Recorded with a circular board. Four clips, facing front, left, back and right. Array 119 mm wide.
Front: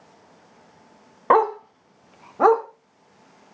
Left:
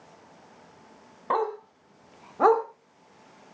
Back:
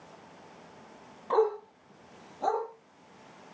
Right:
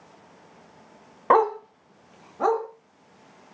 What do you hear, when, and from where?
1.3 s a dog barking: 30° right, 1.1 m; by 2.6 s 25° left, 1.7 m